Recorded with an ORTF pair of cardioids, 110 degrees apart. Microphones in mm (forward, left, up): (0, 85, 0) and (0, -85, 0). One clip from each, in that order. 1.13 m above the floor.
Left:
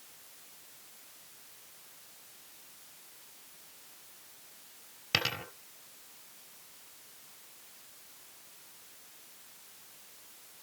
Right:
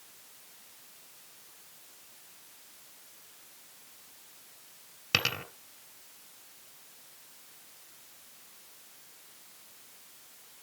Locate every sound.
5.1 s a dropped coin: 15° right, 3 m